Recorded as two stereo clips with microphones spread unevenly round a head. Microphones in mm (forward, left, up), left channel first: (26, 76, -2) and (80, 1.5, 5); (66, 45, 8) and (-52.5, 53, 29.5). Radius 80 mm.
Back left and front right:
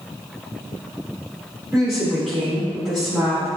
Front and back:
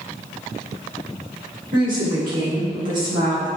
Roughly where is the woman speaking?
Behind right.